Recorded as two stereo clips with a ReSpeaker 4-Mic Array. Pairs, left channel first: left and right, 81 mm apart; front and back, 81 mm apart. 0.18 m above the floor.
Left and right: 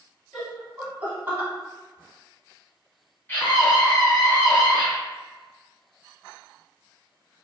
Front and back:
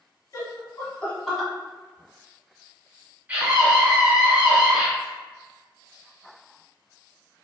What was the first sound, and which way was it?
Laughter, 10° right.